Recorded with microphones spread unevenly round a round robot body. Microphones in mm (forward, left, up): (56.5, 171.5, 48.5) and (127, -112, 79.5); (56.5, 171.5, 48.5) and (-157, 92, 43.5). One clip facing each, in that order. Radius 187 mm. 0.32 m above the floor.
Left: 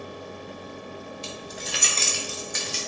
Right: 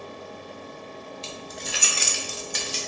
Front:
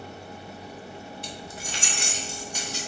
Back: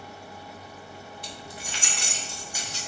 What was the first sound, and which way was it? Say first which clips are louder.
Keys jangling: left 1 dB, front 3 dB; 35° left.